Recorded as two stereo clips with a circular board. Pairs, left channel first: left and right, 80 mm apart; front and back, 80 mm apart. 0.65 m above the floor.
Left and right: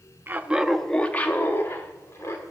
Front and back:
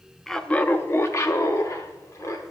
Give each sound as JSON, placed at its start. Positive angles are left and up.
{"t": 0.3, "sound": "laughter", "azimuth_deg": -80, "distance_m": 0.6}